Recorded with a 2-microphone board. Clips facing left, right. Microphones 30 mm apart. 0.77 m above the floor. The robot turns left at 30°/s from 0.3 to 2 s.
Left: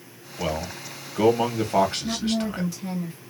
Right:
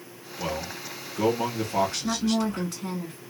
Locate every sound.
0.4 s a man speaking: 145° left, 1.2 m; by 2.7 s 100° left, 1.2 m
2.0 s a woman speaking: 55° right (ahead or behind), 1.7 m